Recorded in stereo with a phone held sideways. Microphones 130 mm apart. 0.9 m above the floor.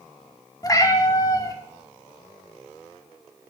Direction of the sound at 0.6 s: 25° left (ahead or behind).